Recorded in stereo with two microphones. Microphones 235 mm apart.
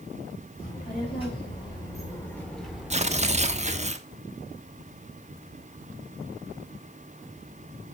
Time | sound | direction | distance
0.6 | a child speaking | 25° left (ahead or behind) | 4.5 m
2.9 | tearing paper | 30° right (ahead or behind) | 1.2 m